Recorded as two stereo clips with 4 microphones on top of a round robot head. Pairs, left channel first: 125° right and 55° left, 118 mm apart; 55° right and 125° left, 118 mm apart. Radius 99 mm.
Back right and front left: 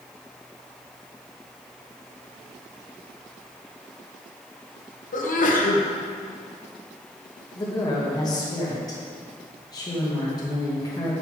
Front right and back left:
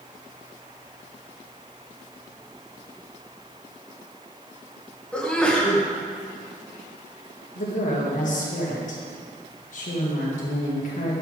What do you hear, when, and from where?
5.1 s a sneeze: 135° right, 1.6 m
7.5 s a woman speaking: 65° right, 2.5 m